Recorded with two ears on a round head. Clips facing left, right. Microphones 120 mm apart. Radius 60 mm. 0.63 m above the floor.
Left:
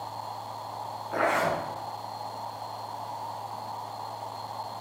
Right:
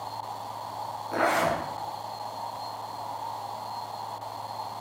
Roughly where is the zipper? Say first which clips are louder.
Right 1 dB; right.